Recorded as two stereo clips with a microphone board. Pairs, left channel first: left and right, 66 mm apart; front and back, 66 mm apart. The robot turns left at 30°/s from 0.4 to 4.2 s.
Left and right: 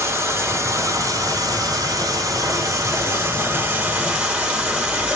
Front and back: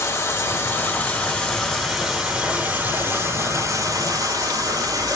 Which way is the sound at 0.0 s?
40° right.